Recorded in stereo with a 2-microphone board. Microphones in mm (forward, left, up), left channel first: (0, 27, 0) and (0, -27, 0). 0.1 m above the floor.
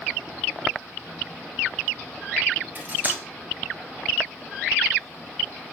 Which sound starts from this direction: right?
Cutlery clinking, at 2.8 s.